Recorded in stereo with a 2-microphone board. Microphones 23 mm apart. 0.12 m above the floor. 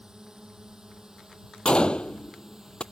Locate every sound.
0.0 s a drone: 30° right (ahead or behind); by 2.9 s 25° right (ahead or behind)
1.6 s a gunshot: 50° left (ahead or behind)